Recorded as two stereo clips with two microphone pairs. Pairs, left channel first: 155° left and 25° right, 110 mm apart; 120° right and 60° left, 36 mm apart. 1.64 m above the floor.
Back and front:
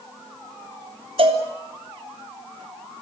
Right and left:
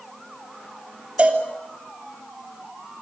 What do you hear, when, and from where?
1.2 s a cowbell: 10° left, 3.5 m